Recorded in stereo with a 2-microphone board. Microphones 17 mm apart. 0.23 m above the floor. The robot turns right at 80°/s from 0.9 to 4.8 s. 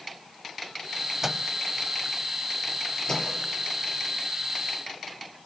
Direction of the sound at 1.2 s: 15° right (ahead or behind).